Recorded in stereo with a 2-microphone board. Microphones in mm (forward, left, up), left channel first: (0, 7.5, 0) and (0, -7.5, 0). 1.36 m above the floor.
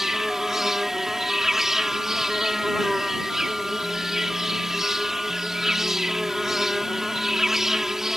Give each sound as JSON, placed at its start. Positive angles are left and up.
{"t": 0.0, "sound": "an insect", "side_deg": -30}